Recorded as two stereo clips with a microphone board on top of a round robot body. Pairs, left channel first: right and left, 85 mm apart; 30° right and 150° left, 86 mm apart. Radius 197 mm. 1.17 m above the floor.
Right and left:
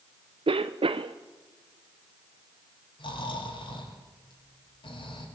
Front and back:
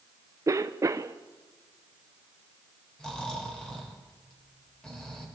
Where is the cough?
95° left, 0.7 m.